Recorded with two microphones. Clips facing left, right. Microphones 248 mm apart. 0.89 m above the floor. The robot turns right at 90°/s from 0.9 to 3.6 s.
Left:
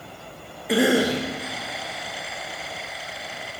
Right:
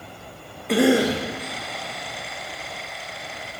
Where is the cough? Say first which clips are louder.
Right 2 dB; 5° left, 0.9 m; by 1.2 s 35° left, 0.9 m.